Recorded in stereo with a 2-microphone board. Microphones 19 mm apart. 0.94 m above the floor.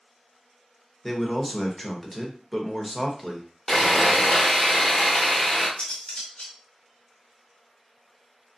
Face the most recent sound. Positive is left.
turn(degrees=85)